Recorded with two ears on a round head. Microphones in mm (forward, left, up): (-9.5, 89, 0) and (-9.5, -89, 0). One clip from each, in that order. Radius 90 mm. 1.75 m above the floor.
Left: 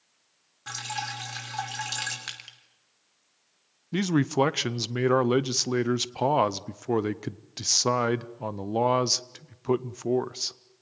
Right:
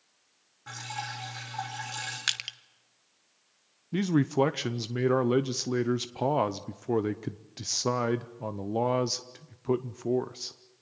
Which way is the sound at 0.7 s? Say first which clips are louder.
Left 4 dB; 70° left (ahead or behind).